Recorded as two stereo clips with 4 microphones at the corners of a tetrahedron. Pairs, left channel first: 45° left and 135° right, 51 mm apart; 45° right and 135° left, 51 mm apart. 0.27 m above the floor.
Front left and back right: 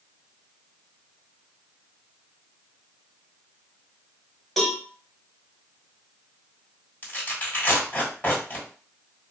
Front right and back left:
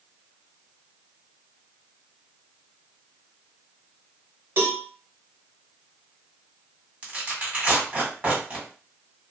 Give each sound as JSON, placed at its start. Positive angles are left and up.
{"t": 4.6, "sound": "a cowbell", "azimuth_deg": 130, "distance_m": 1.2}
{"t": 7.0, "sound": "tearing paper", "azimuth_deg": 95, "distance_m": 2.0}